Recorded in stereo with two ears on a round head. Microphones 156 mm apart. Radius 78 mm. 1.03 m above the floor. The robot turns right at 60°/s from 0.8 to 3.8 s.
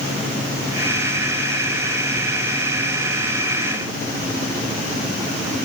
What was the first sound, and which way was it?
Only background noise.